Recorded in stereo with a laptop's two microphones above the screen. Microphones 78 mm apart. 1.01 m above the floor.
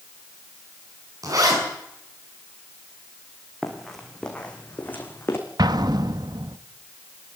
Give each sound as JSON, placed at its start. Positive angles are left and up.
{"t": 1.2, "sound": "a zipper", "side_deg": -50, "distance_m": 6.5}
{"t": 3.6, "sound": "running footsteps", "side_deg": 0, "distance_m": 3.0}
{"t": 5.6, "sound": "an explosion", "side_deg": -60, "distance_m": 0.9}